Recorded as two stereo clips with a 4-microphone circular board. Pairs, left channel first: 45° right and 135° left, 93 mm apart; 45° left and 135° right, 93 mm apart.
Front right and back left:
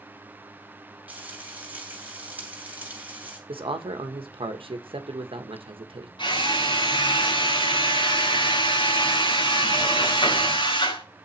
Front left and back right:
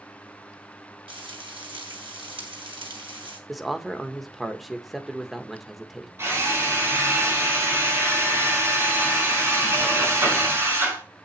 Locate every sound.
1.1 s frying: 155° right, 2.5 m
3.5 s a man speaking: 135° left, 1.2 m
6.2 s a drill: 75° right, 4.5 m